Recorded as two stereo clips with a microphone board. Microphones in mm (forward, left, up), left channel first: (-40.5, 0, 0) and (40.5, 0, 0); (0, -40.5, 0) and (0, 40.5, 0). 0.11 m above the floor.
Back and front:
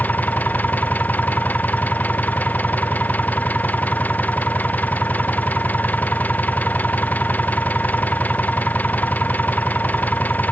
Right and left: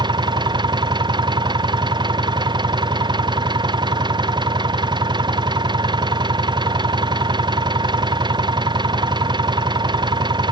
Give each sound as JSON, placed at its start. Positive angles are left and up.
{"t": 0.0, "sound": "an engine running", "azimuth_deg": 110}